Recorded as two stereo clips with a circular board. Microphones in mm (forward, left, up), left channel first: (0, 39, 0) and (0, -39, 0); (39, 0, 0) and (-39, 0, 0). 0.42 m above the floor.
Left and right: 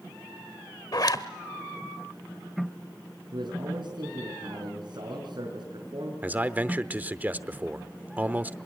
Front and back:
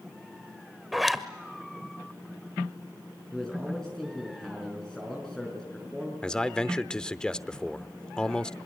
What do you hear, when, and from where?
0.9 s a zipper: 90° left, 1.1 m
3.3 s a man speaking: 80° right, 5 m
6.2 s a man speaking: 65° right, 0.8 m